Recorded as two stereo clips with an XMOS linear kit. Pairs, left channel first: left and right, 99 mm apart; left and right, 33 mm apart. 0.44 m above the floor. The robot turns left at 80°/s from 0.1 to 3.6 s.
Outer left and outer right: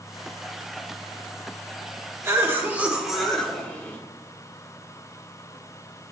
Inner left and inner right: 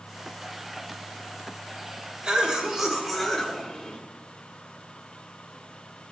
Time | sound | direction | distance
2.2 | a cough | 25° right (ahead or behind) | 1.1 m